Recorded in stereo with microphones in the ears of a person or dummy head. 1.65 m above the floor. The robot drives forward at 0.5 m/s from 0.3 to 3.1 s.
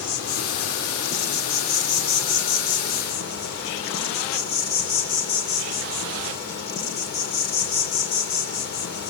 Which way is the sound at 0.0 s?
75° left (ahead or behind).